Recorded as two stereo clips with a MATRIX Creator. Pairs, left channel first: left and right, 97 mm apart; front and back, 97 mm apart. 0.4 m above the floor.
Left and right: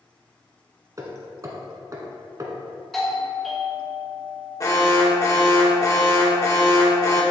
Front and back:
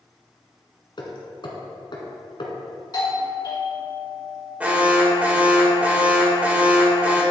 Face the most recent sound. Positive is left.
turn(degrees=115)